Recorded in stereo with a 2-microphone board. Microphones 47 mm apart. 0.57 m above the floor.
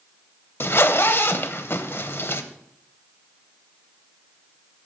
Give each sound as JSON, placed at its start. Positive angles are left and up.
{"t": 0.6, "sound": "a zipper", "side_deg": 55, "distance_m": 0.7}